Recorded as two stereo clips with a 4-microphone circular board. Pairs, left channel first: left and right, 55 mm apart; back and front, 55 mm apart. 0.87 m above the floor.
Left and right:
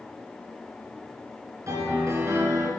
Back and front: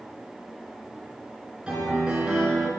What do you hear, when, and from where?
1.7 s a piano: 70° right, 3 m